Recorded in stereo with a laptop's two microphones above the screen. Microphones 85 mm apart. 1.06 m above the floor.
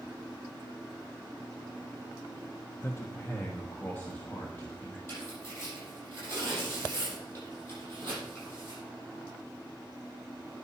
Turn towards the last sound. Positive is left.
turn(degrees=30)  # may be behind; listen again after turning